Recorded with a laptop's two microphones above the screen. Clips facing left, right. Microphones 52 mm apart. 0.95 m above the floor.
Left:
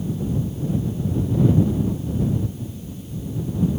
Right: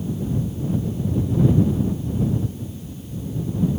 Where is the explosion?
No explosion in this recording.